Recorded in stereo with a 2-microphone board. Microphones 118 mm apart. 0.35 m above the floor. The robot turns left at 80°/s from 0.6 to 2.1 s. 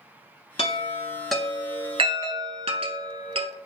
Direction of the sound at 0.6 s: 55° left (ahead or behind).